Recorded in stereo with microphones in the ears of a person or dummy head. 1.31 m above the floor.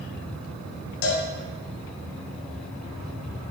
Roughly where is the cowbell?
Left.